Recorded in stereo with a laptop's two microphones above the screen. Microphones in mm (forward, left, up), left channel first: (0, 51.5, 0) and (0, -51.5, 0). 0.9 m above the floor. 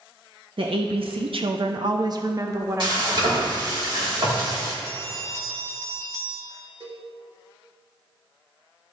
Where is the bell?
25° right (ahead or behind), 2.5 m.